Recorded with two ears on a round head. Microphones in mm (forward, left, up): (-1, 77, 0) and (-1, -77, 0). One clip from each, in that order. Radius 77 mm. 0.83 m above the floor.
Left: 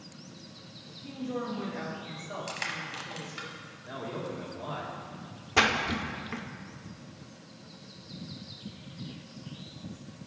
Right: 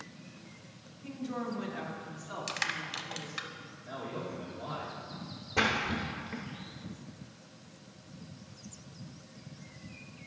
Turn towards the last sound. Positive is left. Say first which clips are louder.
# left 4 dB
turn(degrees=55)  # may be behind; listen again after turning